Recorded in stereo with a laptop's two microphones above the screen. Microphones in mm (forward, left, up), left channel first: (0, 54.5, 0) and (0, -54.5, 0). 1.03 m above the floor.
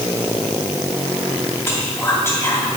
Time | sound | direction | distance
1.7 | whispering | 25° left (ahead or behind) | 2.5 m